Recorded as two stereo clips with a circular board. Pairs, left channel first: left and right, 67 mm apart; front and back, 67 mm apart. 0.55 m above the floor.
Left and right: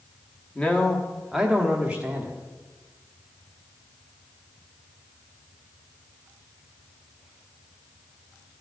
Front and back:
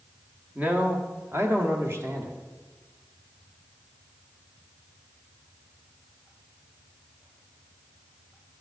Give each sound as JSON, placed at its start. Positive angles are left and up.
{"t": 0.6, "sound": "a man speaking", "azimuth_deg": 140, "distance_m": 1.0}